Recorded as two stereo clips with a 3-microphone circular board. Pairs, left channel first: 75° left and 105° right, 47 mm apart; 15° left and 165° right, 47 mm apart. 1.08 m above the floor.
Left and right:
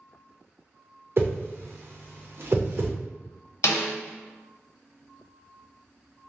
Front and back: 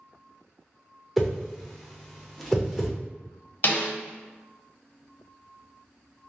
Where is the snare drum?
55° left, 0.7 m.